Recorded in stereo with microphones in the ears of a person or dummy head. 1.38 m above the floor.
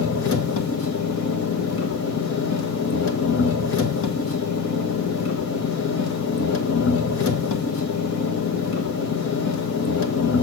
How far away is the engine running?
About 1.2 m.